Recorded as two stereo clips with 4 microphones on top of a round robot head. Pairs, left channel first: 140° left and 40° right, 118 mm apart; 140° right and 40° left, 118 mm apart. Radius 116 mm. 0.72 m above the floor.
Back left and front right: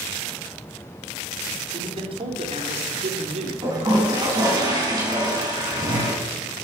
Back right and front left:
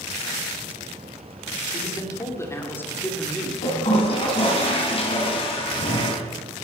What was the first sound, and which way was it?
A man speaking, 85° right.